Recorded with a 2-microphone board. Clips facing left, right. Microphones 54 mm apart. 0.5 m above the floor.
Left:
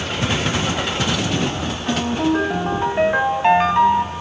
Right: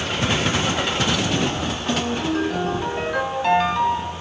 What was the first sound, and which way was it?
A ringtone, 30° left (ahead or behind).